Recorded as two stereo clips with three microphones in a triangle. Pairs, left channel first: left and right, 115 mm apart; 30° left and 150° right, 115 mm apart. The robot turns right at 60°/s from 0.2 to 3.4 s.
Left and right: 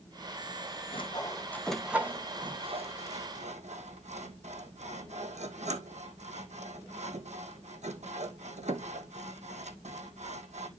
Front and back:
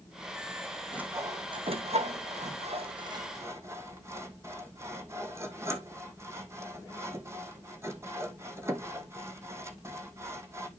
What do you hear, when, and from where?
0.9 s sawing: 130° left, 1.6 m; by 10.7 s 80° right, 1.6 m